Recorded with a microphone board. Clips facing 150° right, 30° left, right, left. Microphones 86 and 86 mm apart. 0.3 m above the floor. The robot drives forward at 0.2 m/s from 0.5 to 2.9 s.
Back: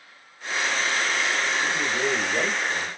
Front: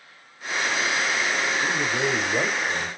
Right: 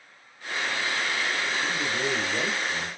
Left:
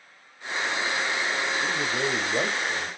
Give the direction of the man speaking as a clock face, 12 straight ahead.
9 o'clock.